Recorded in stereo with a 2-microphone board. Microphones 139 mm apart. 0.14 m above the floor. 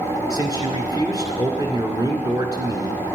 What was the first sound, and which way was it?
A man speaking, 30° right (ahead or behind).